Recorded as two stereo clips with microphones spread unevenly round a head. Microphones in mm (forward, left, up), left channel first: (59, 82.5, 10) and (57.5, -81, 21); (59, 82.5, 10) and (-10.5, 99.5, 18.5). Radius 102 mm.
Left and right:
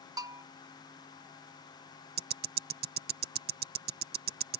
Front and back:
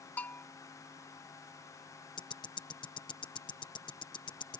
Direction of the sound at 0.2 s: 70° right.